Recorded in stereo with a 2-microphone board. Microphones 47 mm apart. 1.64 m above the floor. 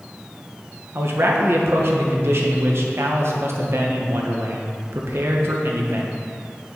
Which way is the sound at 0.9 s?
60° right (ahead or behind).